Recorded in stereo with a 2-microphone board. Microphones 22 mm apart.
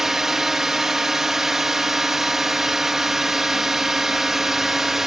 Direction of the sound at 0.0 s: 20° right (ahead or behind).